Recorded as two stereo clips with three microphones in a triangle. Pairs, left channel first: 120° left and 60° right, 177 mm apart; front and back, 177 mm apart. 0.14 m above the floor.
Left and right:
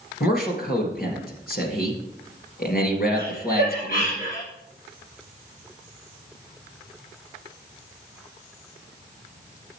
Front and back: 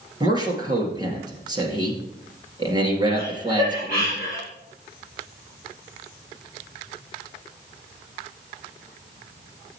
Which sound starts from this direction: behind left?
A man speaking, at 0.2 s.